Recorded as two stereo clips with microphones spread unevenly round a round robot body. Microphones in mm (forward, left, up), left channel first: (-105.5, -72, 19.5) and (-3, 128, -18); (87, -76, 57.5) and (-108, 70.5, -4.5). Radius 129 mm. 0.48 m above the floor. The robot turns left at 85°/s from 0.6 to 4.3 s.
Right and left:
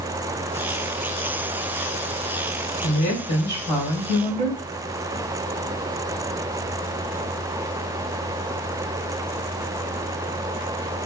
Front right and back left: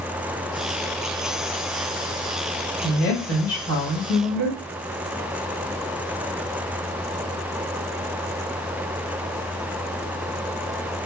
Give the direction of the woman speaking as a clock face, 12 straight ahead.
3 o'clock.